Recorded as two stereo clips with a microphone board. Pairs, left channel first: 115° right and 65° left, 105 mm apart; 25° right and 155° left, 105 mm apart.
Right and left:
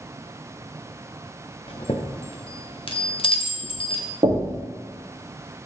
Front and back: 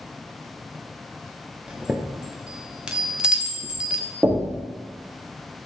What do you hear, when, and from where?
1.7 s a chime: 120° right, 0.7 m
4.2 s knocking: 90° left, 1.0 m